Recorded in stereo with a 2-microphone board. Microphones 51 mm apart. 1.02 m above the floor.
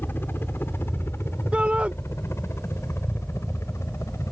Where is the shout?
25° right (ahead or behind).